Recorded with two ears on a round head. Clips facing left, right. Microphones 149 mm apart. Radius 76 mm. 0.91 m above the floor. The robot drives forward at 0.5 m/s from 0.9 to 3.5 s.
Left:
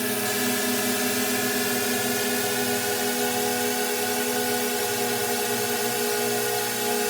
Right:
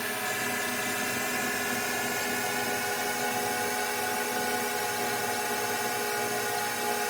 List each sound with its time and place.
0.0 s a drone: 50° left (ahead or behind); by 7.1 s 40° left (ahead or behind)